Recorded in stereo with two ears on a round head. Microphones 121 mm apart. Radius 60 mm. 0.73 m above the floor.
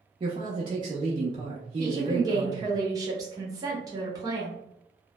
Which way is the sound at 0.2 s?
35° right (ahead or behind).